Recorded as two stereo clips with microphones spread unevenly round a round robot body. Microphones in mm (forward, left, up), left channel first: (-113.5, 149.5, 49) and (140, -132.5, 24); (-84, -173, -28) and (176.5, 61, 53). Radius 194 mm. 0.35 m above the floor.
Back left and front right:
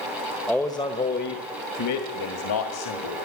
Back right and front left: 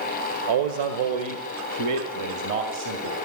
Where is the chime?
No chime in this recording.